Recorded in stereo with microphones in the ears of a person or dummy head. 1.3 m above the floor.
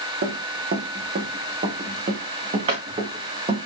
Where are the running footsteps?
60° right (ahead or behind), 3 m; by 3.7 s 35° right (ahead or behind), 3.5 m.